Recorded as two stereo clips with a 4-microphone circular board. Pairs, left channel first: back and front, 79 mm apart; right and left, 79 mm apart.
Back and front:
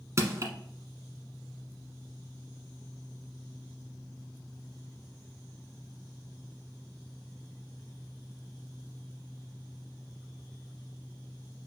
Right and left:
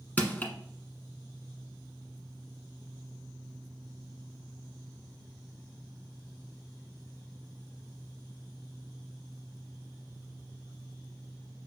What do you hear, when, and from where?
0.2 s crushing: 30° right, 1.3 m